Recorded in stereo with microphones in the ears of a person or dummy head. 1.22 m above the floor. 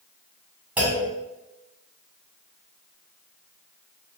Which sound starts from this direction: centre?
A clunk, at 0.8 s.